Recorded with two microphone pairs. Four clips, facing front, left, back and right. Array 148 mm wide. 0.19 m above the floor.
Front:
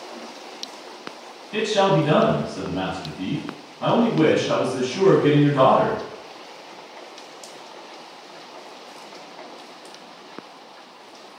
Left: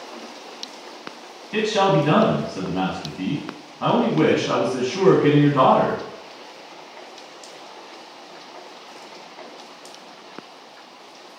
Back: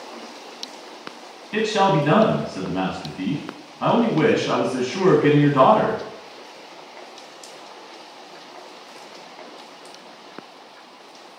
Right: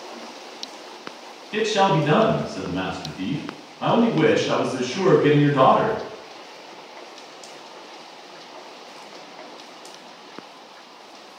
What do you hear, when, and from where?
1.5 s a man speaking: 175° left, 1.3 m